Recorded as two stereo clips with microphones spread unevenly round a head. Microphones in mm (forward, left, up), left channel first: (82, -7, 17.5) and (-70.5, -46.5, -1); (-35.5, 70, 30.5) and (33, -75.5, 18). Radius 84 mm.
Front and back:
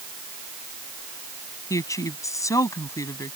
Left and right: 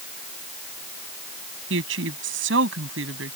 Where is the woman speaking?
55° right.